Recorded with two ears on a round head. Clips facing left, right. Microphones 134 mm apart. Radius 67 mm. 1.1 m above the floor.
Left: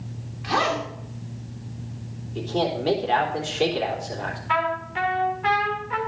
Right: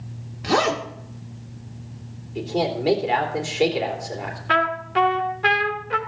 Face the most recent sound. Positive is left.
turn(degrees=-75)  # may be behind; listen again after turning